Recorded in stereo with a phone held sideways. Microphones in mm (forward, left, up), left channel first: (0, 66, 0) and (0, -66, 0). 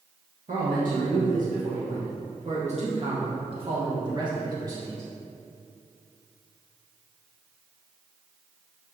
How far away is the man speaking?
About 2.5 m.